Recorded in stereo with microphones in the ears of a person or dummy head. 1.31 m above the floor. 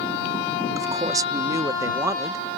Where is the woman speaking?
20° right (ahead or behind).